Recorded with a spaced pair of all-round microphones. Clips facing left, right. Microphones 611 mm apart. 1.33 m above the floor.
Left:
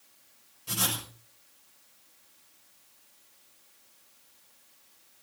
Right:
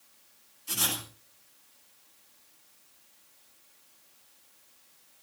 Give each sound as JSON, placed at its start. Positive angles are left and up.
{"t": 0.7, "sound": "writing", "side_deg": 75, "distance_m": 6.5}